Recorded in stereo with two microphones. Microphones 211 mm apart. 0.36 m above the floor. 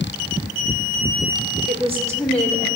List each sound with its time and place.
1.7 s a woman speaking: 40° right (ahead or behind), 1.3 m; by 2.7 s 25° left (ahead or behind), 1.3 m